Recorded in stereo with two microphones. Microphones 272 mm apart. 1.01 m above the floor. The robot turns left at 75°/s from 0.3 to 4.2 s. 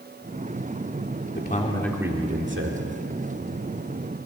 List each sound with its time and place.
1.4 s a man speaking: 45° left, 2.5 m; by 2.9 s 70° right, 2.5 m